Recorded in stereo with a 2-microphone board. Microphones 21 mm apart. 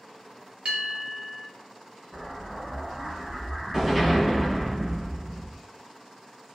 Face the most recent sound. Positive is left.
turn(degrees=-20)  # may be behind; listen again after turning